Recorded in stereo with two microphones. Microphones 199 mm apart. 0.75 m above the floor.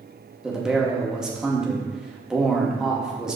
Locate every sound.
0.4 s a man speaking: 5° right (ahead or behind), 0.8 m